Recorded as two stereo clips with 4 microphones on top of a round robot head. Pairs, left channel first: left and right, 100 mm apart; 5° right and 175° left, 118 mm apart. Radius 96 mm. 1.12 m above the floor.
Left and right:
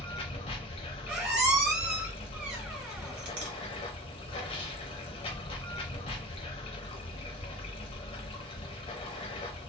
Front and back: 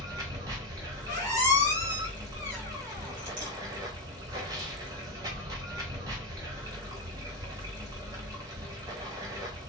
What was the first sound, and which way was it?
Running water, 115° left.